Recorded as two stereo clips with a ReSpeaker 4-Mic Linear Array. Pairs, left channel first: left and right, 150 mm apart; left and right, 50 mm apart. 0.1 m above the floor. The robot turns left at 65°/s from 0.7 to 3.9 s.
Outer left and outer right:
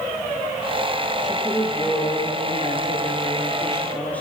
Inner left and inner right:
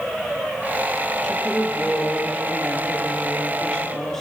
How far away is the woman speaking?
About 2.5 m.